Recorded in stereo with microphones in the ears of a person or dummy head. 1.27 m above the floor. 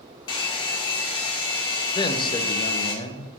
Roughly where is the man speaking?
Left.